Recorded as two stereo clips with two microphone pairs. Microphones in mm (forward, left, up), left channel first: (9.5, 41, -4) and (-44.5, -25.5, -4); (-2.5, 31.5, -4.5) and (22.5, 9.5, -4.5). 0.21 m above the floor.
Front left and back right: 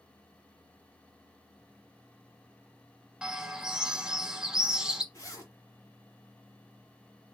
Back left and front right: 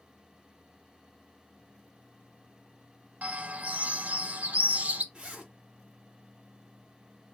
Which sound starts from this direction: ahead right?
A bird, at 3.2 s.